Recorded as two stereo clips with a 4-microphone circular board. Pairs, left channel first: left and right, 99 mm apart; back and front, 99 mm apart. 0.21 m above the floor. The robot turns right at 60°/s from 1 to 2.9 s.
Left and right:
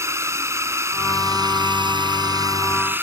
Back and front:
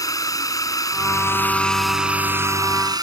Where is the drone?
140° right; by 3.0 s 30° right.